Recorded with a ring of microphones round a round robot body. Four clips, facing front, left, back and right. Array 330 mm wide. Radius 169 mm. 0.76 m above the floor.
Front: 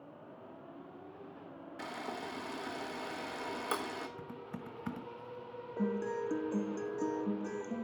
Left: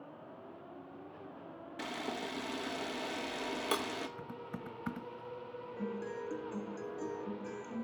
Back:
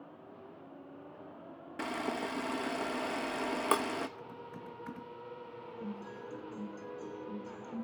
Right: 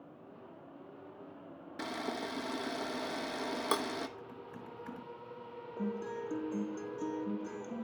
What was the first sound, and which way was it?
A camera shutter, 160° right.